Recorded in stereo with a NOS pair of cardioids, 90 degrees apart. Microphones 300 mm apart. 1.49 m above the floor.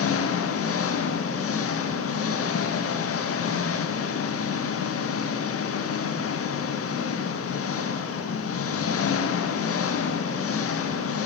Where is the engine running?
50° left, 1.6 m.